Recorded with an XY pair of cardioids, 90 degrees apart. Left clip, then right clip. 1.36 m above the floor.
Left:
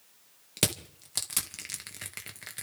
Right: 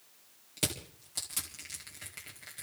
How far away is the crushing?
About 1.9 m.